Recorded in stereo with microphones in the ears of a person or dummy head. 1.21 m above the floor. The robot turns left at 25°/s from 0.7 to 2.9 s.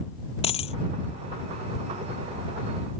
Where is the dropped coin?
35° left (ahead or behind).